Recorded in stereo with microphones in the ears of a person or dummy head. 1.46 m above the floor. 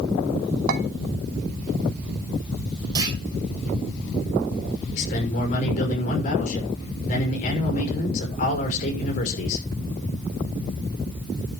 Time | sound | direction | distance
0.7 | a clink | 50° right (ahead or behind) | 3 m
3.0 | a clunk | 25° right (ahead or behind) | 3 m
4.9 | a man speaking | 45° left (ahead or behind) | 6 m